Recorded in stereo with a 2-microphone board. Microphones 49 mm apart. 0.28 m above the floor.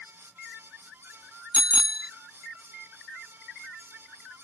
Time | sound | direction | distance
1.5 | a bicycle bell | 20° right (ahead or behind) | ?